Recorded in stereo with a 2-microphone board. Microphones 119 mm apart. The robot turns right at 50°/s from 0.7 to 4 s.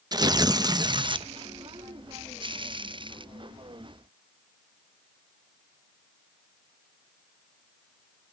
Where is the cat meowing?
No cat meowing in this recording.